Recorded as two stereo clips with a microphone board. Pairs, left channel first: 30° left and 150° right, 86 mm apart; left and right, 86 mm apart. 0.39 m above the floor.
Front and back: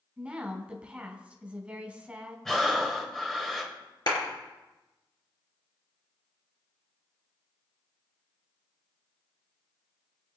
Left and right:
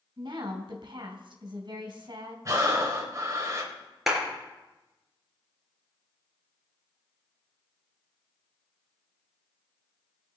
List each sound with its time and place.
0.2 s a woman speaking: 75° right, 2.5 m
2.5 s breathing: 55° right, 2 m
4.1 s a clap: 5° right, 4.5 m